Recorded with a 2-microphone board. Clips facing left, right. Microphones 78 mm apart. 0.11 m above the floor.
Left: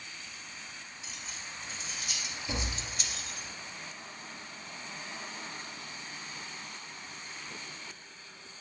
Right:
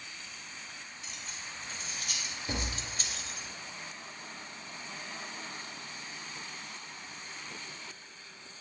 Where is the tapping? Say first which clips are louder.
Even; 40° right (ahead or behind), 0.9 m.